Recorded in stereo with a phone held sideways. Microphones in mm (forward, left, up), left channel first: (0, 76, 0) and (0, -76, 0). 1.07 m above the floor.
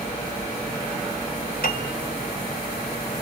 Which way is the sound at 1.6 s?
70° left (ahead or behind).